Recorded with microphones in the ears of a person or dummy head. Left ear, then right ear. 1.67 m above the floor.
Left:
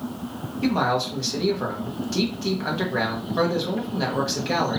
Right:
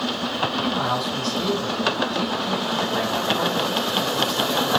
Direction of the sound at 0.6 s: 80° left.